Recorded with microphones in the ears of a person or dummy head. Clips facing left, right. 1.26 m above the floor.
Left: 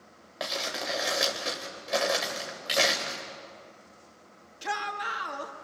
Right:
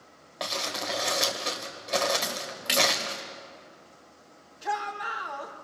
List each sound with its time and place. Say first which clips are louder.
0.4 s crumpling: even; 10° left (ahead or behind), 2.5 m
2.2 s a splash: right 1 dB; 30° right (ahead or behind), 2.5 m
4.6 s a shout: right 2 dB; 40° left (ahead or behind), 2.5 m